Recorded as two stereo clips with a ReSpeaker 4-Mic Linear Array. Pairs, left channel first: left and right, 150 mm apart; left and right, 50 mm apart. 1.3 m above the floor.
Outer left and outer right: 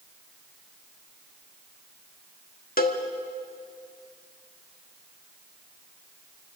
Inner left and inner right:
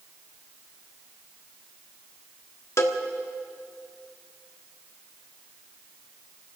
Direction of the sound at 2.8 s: 70° left (ahead or behind).